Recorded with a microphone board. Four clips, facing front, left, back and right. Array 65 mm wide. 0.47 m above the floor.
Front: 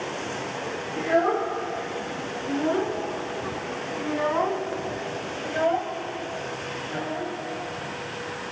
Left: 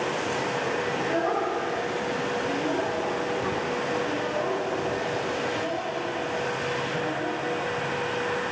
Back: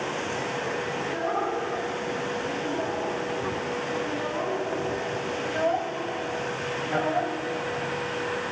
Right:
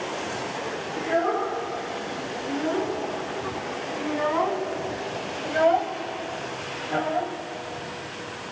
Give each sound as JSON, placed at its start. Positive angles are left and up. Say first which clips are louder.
{"t": 1.0, "sound": "a child speaking", "louder": "right 5 dB, front 9 dB", "azimuth_deg": -30, "distance_m": 7.5}